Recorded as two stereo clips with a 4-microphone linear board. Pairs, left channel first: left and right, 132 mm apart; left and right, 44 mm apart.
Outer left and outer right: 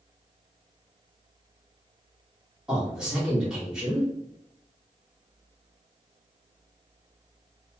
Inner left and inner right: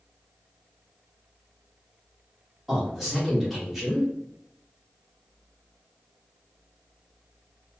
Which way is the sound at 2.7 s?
5° right (ahead or behind).